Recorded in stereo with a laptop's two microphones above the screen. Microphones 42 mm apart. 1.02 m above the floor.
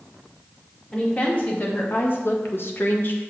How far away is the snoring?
I don't hear snoring.